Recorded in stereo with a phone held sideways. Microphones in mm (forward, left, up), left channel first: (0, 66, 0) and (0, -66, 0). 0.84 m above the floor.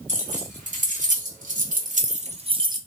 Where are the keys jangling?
70° right (ahead or behind), 1.7 m; by 2.8 s 30° right (ahead or behind), 0.6 m.